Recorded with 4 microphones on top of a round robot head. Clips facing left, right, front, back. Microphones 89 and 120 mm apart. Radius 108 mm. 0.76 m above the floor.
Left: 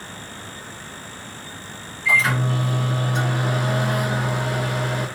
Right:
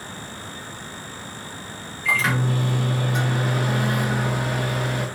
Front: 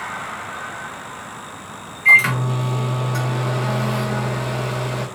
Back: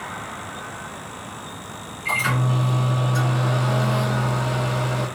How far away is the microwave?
About 1.4 m.